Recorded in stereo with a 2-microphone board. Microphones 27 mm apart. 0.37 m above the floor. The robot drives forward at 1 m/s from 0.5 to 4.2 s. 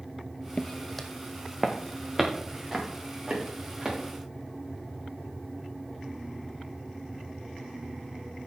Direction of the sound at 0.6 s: 45° left (ahead or behind).